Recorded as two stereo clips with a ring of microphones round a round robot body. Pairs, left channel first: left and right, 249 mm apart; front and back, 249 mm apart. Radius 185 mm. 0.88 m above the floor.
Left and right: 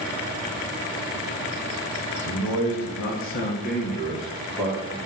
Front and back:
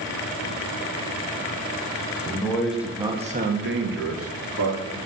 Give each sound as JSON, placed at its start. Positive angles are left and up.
{"t": 2.2, "sound": "a man speaking", "azimuth_deg": 75, "distance_m": 2.0}